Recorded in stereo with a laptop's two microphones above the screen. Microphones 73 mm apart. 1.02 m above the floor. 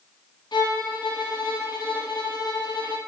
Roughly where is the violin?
Left.